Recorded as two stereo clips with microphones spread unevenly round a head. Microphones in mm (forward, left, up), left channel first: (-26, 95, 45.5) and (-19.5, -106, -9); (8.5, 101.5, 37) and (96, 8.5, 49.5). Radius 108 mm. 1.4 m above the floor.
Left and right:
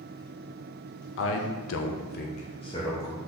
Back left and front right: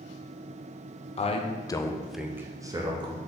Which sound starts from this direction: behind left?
A man speaking, at 1.2 s.